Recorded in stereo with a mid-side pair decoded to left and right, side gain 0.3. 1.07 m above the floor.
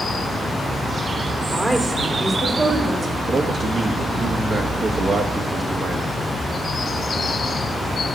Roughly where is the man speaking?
Ahead right.